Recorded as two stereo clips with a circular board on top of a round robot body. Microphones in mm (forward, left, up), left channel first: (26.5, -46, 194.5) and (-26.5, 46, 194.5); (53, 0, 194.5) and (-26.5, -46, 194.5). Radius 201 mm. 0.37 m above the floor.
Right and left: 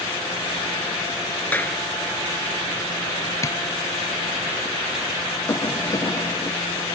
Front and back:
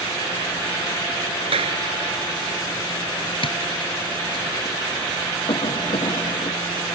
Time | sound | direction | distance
1.4 | a clap | 135° right | ?
3.4 | tapping | 5° left | ?
5.5 | a cough | straight ahead | ?